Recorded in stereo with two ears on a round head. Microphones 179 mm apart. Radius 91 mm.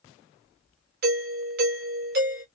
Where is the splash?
I don't hear a splash.